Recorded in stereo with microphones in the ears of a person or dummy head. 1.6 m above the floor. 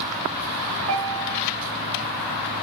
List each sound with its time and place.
0.9 s a piano: 80° right, 4 m